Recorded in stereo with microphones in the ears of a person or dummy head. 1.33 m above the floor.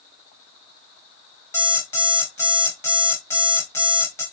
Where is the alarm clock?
15° left (ahead or behind), 1.1 m.